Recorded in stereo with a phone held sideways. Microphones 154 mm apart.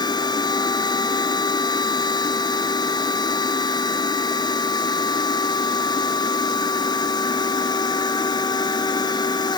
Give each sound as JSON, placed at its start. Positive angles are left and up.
{"t": 0.0, "sound": "a machine running", "side_deg": 30}